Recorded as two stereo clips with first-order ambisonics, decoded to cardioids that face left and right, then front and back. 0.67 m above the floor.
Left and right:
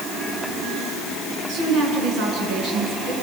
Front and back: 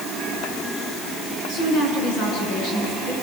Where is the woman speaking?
45° right, 8.5 m; by 3.1 s 50° right, 9 m.